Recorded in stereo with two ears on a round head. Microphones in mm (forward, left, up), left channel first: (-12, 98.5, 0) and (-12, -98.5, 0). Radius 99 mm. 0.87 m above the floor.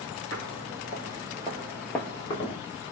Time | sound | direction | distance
0.3 | footsteps | 40° right (ahead or behind) | 1.2 m